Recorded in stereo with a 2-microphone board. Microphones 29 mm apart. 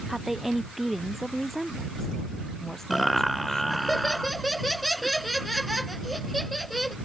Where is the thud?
No thud in this recording.